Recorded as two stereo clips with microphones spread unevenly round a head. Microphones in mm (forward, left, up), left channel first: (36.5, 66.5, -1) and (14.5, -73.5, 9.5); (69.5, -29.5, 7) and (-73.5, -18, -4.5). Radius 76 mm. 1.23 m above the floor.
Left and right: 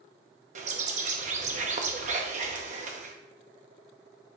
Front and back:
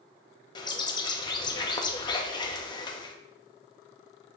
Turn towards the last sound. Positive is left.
turn(degrees=-65)